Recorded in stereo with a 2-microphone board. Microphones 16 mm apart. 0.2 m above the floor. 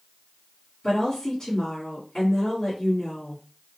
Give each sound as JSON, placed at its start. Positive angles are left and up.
{"t": 0.8, "sound": "a woman speaking", "side_deg": 45, "distance_m": 2.0}